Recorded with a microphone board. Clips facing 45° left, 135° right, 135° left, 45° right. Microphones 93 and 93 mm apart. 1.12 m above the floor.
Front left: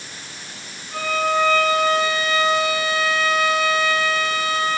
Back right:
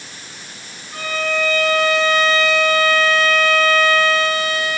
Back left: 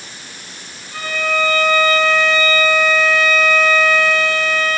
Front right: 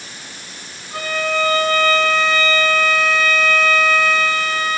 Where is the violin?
10° left, 3 m.